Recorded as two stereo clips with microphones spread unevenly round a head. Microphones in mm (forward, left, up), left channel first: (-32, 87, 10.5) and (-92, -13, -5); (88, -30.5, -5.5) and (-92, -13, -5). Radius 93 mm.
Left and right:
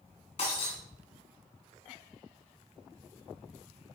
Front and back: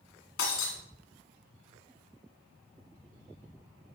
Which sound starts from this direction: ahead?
Breaking glass, at 0.4 s.